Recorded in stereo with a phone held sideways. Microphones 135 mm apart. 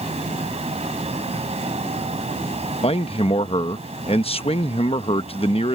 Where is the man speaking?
50° left (ahead or behind).